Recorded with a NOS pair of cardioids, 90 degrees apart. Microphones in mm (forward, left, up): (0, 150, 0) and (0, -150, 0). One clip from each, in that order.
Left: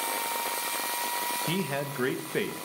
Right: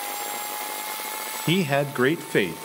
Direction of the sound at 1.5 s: 45° right.